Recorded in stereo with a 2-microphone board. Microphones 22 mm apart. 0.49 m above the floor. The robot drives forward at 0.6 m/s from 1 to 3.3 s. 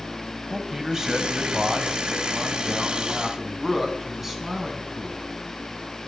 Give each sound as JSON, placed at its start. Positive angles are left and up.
{"t": 0.5, "sound": "a man speaking", "side_deg": -20, "distance_m": 2.5}